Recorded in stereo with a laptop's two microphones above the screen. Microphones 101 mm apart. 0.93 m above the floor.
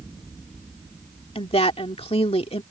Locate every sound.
1.4 s a woman speaking: 80° left